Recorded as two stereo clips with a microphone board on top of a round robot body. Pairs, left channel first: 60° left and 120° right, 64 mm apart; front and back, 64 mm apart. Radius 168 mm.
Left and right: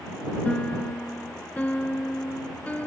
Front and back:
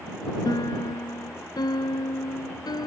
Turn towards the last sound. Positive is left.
turn(degrees=-10)